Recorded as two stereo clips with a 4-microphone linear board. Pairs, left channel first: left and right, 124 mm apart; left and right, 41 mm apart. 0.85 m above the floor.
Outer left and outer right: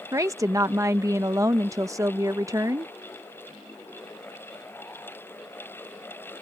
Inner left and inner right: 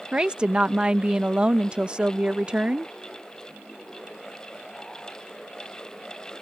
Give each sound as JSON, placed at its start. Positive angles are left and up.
{"t": 0.1, "sound": "a woman speaking", "side_deg": -25}